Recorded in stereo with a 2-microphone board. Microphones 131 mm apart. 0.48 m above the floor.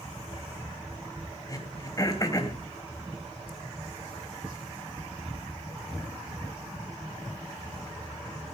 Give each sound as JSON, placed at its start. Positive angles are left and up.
{"t": 1.5, "sound": "throat clearing", "side_deg": 30, "distance_m": 3.0}